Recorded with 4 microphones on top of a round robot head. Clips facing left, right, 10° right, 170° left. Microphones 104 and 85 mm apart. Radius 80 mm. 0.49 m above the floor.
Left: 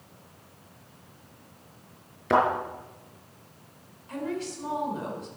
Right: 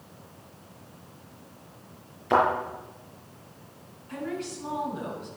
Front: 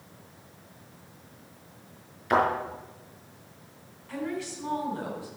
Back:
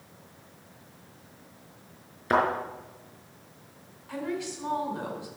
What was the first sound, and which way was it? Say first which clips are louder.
A thud: even, front 1 dB; 115° left.